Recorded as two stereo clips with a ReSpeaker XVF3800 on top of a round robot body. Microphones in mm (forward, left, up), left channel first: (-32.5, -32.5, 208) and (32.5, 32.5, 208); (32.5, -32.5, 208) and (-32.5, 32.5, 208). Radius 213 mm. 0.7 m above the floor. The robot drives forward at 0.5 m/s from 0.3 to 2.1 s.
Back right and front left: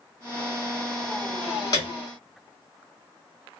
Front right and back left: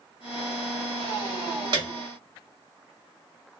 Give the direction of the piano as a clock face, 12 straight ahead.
6 o'clock.